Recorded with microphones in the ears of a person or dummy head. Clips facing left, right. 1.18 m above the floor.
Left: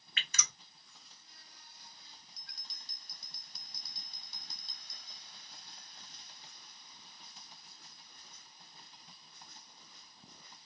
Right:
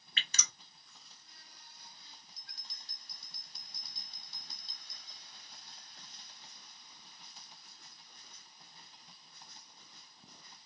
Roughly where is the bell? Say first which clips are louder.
Even; left.